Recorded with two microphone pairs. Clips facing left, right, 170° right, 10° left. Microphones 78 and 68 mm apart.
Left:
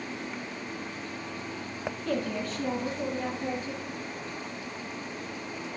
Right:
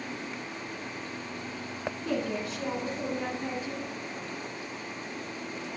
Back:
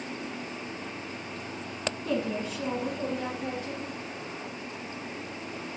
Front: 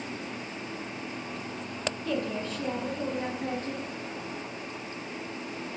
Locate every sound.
2.0 s a woman speaking: 155° right, 1.8 m; by 3.9 s 10° right, 2 m